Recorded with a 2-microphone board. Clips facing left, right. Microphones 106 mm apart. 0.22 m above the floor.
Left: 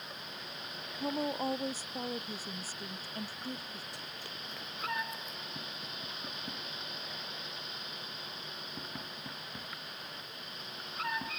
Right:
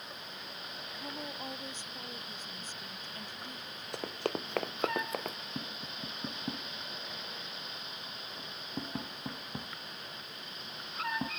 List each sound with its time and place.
1.0 s a woman speaking: 35° left (ahead or behind)
3.9 s running footsteps: 65° right (ahead or behind); by 5.4 s 70° right (ahead or behind)
5.5 s tapping: 30° right (ahead or behind)